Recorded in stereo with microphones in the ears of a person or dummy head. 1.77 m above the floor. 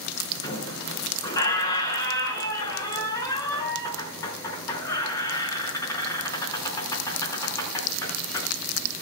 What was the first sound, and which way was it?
A squeak, 20° left (ahead or behind).